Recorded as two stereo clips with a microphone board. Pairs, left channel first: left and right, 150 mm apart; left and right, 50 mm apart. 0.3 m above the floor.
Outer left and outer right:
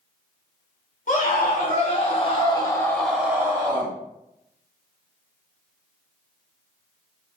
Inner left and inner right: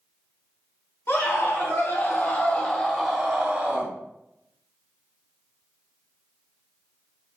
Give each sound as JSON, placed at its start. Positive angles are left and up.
{"t": 1.1, "sound": "a scream", "side_deg": 65, "distance_m": 2.0}